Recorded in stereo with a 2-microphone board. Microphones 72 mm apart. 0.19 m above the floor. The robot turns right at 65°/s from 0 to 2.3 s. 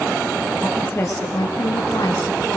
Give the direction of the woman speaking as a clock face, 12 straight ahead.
12 o'clock.